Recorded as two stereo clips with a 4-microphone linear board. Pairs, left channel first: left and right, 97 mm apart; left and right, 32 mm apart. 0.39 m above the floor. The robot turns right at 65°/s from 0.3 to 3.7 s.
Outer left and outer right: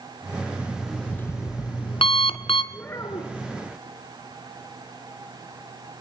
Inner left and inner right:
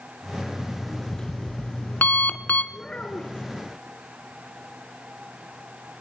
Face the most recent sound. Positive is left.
turn(degrees=80)